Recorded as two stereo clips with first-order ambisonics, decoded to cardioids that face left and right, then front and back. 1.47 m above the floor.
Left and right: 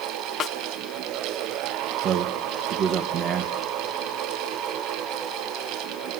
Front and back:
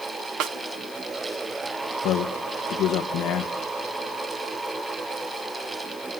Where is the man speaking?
45° right, 1.2 m.